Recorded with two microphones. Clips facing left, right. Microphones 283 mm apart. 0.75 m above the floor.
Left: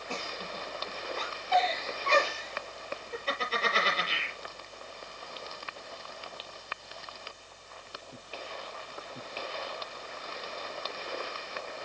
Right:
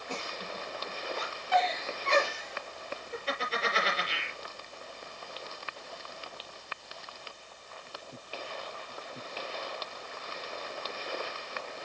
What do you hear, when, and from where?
0.1 s a giggle: 10° right (ahead or behind), 7 m